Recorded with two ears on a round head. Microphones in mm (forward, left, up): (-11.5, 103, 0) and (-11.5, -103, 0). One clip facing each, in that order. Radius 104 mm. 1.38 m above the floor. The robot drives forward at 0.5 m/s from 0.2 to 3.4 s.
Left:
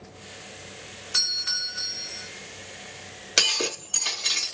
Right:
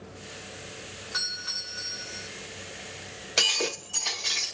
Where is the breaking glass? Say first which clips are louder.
Left 1 dB; 25° left (ahead or behind), 2.5 m.